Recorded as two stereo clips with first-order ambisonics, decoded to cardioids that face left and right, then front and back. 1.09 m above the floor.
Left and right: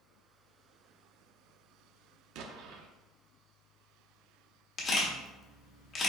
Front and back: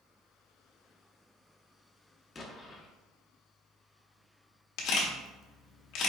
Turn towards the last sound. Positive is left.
turn(degrees=35)